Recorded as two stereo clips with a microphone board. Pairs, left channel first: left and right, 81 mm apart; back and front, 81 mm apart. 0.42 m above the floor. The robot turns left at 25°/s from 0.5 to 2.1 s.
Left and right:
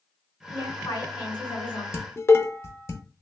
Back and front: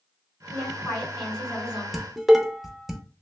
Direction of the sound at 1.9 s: 85° left.